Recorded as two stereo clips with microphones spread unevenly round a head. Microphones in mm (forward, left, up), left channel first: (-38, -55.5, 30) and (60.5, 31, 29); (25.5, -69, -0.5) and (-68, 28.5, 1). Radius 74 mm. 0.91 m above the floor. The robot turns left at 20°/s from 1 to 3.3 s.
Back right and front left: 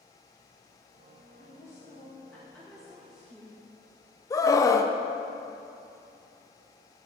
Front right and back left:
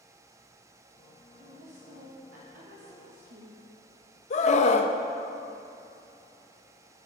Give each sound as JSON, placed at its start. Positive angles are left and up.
{"t": 1.4, "sound": "a woman speaking", "azimuth_deg": 160, "distance_m": 1.0}
{"t": 4.3, "sound": "a scream", "azimuth_deg": -75, "distance_m": 0.6}